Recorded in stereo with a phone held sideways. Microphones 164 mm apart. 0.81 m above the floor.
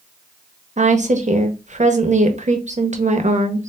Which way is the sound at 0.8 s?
45° right (ahead or behind).